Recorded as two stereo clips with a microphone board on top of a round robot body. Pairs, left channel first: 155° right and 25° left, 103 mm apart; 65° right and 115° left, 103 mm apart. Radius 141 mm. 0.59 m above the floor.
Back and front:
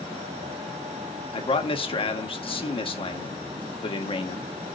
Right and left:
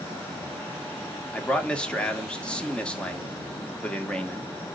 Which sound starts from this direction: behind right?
A man speaking, at 1.3 s.